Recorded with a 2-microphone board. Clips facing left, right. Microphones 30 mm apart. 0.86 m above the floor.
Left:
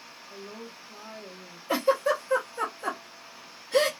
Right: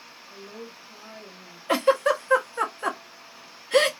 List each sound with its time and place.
0.3 s a woman speaking: 20° left (ahead or behind), 1.3 m
1.7 s a giggle: 60° right (ahead or behind), 0.7 m